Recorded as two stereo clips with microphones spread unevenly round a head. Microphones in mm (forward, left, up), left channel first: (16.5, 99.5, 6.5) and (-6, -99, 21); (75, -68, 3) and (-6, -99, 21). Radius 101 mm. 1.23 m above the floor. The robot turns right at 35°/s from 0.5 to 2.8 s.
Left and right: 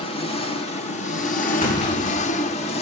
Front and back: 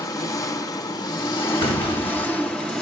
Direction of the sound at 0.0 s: 45° left.